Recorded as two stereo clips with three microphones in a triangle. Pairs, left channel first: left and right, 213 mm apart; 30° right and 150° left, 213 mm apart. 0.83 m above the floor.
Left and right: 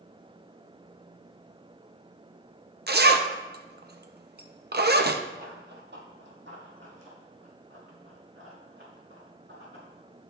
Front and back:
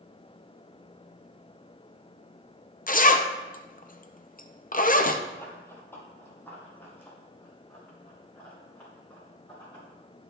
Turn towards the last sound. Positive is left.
turn(degrees=-110)